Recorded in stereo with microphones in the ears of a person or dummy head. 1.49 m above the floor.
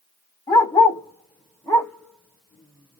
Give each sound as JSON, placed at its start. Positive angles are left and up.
{"t": 0.5, "sound": "a dog barking", "side_deg": 20, "distance_m": 1.2}